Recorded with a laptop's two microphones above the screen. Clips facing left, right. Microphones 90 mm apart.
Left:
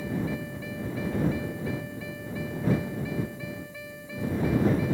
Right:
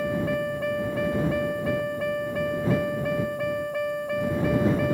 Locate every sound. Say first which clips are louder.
0.0 s a vehicle: right 6 dB; 60° right (ahead or behind)